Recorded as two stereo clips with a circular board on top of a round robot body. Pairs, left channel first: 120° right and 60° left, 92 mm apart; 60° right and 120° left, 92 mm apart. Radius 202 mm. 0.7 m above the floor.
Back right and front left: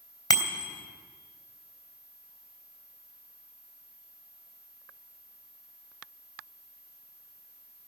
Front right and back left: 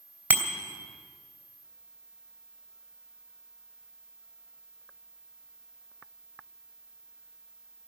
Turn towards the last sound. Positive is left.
turn(degrees=-170)